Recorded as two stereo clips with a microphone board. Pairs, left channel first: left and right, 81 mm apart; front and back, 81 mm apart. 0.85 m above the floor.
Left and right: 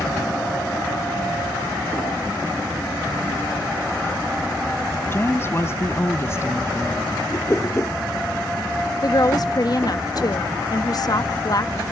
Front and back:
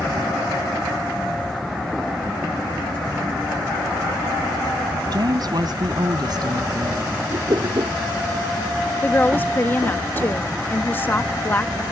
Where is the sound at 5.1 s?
150° left; by 7.3 s 145° left.